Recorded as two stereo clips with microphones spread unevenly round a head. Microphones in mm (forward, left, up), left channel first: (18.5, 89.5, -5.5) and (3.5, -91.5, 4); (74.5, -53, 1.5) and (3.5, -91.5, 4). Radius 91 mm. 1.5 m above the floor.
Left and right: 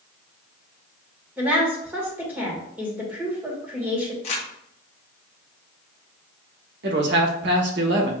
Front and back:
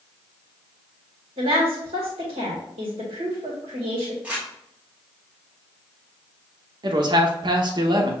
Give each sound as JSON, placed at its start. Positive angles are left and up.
{"t": 1.4, "sound": "a woman speaking", "azimuth_deg": -175, "distance_m": 1.6}
{"t": 4.2, "sound": "crumpling", "azimuth_deg": 135, "distance_m": 1.0}
{"t": 6.8, "sound": "a man speaking", "azimuth_deg": -125, "distance_m": 1.0}